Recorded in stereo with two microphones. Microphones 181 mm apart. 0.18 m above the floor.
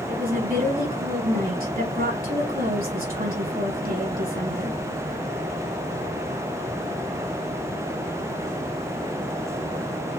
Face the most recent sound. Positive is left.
turn(degrees=-55)  # may be behind; listen again after turning